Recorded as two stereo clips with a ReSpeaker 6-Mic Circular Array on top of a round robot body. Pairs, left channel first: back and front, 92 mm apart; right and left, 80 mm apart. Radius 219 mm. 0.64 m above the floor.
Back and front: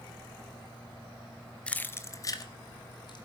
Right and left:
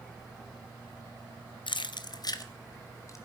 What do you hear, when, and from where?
1.7 s keys jangling: 100° right, 0.8 m; by 3.2 s 145° right, 1.9 m